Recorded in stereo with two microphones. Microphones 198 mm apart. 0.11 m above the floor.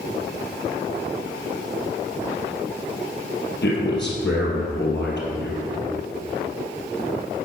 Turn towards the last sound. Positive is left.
turn(degrees=65)  # may be behind; listen again after turning